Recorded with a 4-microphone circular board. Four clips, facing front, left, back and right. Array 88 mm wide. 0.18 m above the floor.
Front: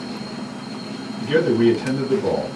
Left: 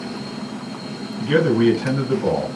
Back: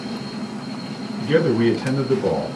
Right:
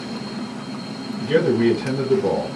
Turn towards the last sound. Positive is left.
turn(degrees=110)